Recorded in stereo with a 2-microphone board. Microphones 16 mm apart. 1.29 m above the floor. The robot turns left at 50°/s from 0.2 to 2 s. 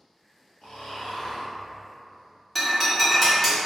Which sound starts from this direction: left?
Snoring, at 0.6 s.